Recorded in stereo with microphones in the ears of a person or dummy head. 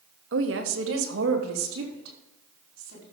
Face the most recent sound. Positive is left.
turn(degrees=-70)  # may be behind; listen again after turning